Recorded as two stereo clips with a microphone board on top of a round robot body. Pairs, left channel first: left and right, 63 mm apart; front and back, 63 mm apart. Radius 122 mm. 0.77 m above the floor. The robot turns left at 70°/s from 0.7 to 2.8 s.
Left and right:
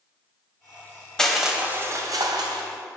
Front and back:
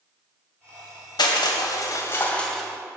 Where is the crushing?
10° left, 1.8 m; by 2.6 s 90° right, 1.8 m.